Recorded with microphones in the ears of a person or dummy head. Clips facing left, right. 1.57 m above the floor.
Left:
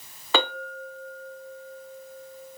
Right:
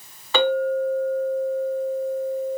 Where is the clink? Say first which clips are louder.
Right 9 dB; 65° left (ahead or behind), 1.4 m.